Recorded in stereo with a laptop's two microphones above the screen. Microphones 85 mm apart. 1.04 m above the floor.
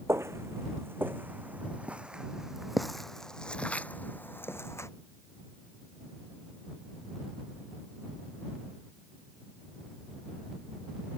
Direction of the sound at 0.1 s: 35° right (ahead or behind).